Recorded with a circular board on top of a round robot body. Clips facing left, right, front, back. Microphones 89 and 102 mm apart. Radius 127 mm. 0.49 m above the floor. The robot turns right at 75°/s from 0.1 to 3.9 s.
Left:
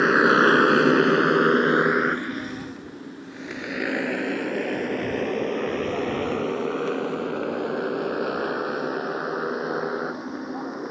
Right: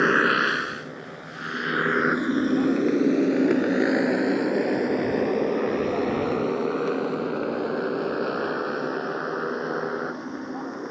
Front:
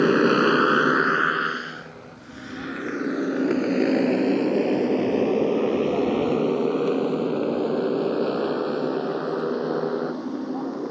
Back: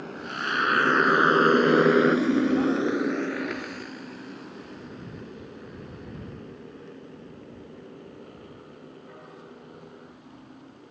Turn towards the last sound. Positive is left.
turn(degrees=5)